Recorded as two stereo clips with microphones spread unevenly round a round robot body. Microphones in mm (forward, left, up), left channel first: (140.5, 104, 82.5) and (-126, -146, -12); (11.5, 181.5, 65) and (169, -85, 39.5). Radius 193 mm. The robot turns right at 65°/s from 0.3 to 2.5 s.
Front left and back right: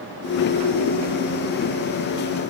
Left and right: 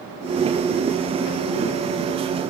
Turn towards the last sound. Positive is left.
No sound to turn to.